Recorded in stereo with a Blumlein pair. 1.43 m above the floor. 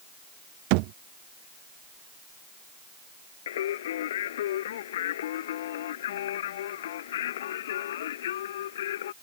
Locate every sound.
0.7 s a thud: 45° right
3.5 s singing: 60° left